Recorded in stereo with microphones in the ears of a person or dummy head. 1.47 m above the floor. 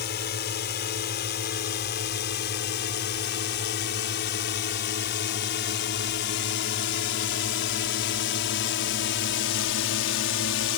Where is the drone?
45° left (ahead or behind); by 10.8 s 60° left (ahead or behind).